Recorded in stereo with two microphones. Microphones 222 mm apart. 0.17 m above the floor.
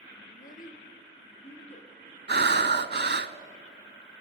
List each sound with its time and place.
0.3 s a child speaking: 45° left (ahead or behind), 1.9 m; by 1.9 s 30° left (ahead or behind), 3.5 m
2.3 s breathing: 55° right (ahead or behind), 0.7 m